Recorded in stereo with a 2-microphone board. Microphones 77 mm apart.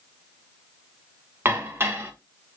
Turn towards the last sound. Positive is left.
turn(degrees=-30)  # may be behind; listen again after turning